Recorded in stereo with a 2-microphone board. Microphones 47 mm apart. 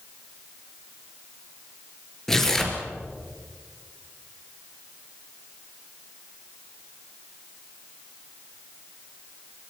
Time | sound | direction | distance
2.3 | tearing paper | 10° left (ahead or behind) | 3.5 m